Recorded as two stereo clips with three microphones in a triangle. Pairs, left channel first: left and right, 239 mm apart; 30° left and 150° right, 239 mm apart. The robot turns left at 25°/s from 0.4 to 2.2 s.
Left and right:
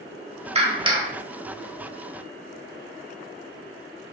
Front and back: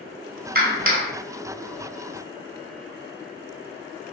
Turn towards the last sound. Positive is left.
turn(degrees=180)